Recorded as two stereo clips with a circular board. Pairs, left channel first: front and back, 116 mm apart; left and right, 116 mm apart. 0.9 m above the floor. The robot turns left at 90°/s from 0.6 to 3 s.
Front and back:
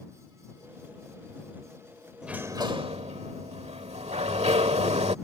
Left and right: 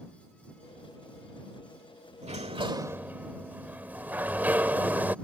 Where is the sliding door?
95° right; by 5.2 s 165° right.